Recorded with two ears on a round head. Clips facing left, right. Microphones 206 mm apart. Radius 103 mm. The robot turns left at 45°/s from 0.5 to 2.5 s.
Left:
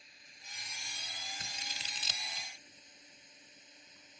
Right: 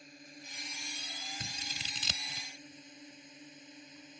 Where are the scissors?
85° right; by 2.5 s 40° right (ahead or behind).